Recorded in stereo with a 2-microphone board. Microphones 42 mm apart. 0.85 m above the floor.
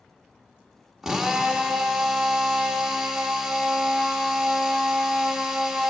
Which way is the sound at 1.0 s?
10° right (ahead or behind).